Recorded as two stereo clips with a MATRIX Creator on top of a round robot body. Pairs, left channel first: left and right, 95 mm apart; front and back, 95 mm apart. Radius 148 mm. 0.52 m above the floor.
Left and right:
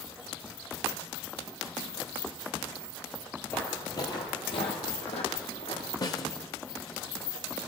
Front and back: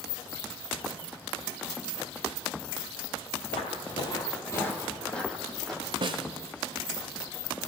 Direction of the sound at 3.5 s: 15° left.